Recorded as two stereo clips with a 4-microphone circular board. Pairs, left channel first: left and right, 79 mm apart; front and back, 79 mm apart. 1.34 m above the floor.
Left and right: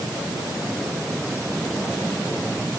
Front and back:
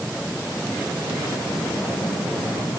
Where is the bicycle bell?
No bicycle bell in this recording.